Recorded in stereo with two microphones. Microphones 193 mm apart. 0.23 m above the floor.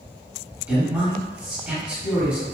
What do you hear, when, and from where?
0.7 s a man speaking: 10° right (ahead or behind), 1.2 m